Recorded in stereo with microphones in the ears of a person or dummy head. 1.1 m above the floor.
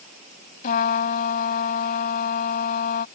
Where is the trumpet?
45° left (ahead or behind).